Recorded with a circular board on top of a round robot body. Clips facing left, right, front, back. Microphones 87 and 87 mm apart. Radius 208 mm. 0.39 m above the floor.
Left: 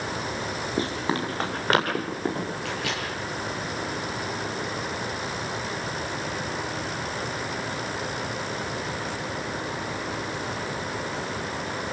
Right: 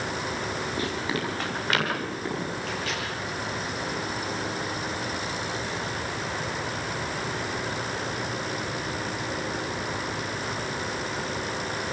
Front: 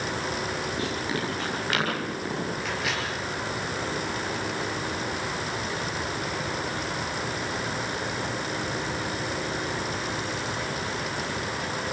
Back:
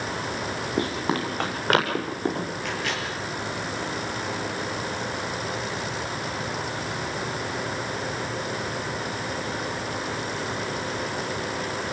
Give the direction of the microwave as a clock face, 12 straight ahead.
9 o'clock.